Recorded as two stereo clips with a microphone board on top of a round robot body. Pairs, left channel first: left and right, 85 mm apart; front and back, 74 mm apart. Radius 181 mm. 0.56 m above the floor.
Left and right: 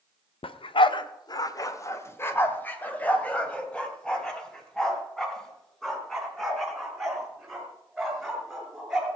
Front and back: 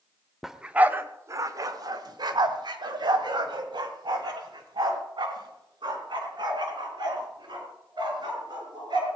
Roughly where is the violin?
No violin in this recording.